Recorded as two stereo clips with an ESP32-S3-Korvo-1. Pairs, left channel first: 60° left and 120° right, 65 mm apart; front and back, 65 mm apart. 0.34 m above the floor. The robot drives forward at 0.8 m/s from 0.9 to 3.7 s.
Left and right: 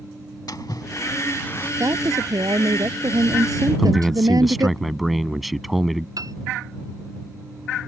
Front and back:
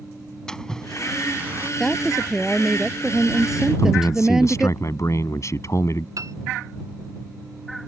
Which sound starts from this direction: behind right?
A piano, at 6.2 s.